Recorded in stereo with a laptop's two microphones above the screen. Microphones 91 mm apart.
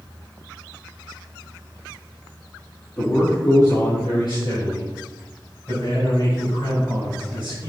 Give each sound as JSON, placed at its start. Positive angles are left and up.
{"t": 3.0, "sound": "a man speaking", "side_deg": 35, "distance_m": 1.6}